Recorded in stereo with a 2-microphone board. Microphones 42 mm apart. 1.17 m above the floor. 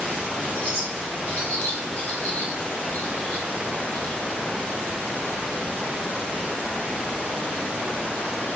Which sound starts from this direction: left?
A bird, at 0.6 s.